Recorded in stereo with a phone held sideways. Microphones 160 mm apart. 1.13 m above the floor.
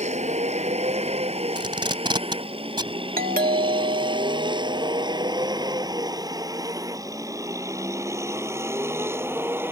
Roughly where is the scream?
I don't hear a scream.